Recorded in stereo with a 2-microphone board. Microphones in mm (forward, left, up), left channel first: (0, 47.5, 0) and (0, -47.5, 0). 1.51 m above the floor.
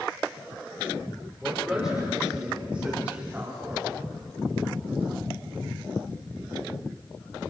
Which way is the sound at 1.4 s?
5° right (ahead or behind).